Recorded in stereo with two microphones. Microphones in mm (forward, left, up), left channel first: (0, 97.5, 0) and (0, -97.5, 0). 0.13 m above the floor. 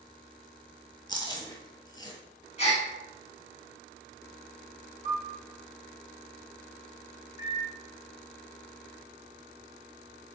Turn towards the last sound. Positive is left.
turn(degrees=-15)  # may be behind; listen again after turning